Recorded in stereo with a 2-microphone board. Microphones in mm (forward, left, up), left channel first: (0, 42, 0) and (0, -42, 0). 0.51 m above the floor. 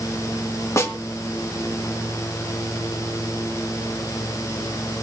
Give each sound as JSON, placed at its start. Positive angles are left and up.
{"t": 0.8, "sound": "a snare drum", "side_deg": 35, "distance_m": 2.5}